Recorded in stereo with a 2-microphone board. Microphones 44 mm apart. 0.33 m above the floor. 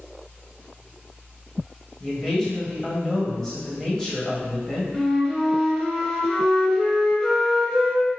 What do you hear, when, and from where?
2.0 s a man speaking: 15° left (ahead or behind), 1.5 m
4.9 s a flute: 5° left (ahead or behind), 1.2 m